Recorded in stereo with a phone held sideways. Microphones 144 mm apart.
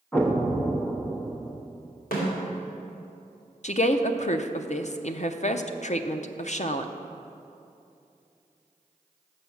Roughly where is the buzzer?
I don't hear a buzzer.